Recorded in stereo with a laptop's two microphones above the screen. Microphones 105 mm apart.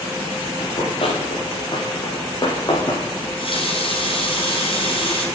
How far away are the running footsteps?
About 8 m.